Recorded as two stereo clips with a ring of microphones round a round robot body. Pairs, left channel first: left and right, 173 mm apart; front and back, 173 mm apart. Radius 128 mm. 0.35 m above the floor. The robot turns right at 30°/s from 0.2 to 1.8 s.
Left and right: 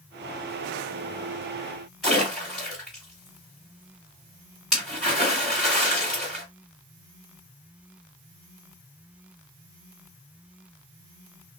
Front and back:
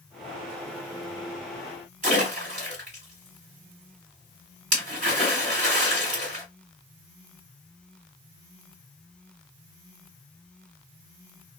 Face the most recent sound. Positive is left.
turn(degrees=-175)